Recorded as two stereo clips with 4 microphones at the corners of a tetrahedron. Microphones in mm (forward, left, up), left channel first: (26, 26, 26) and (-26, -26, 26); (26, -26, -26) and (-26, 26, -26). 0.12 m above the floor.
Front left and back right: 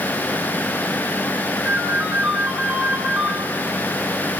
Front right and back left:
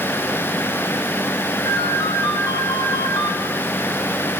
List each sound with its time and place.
1.6 s a ringtone: 65° right, 5.5 m